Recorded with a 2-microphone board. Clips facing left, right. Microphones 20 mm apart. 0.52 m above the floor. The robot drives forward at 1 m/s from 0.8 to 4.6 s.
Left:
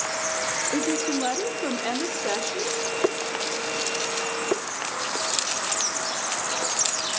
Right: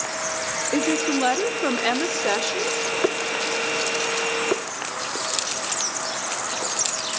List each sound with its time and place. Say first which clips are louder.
0.7 s a woman speaking: right 6 dB; 35° right (ahead or behind), 1.0 m; by 2.9 s 20° right (ahead or behind), 1.8 m